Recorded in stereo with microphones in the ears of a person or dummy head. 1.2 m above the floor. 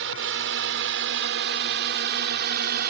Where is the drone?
70° right (ahead or behind); by 2.9 s 55° right (ahead or behind).